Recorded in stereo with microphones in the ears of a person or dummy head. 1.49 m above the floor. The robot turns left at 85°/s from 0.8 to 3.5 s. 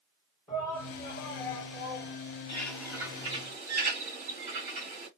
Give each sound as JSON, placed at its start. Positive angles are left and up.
{"t": 0.5, "sound": "a shout", "azimuth_deg": 165, "distance_m": 1.3}
{"t": 2.5, "sound": "a bird", "azimuth_deg": 20, "distance_m": 1.8}